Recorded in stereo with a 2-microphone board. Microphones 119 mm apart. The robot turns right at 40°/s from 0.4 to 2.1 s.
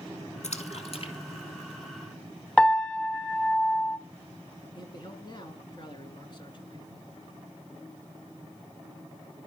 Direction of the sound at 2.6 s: 10° left (ahead or behind).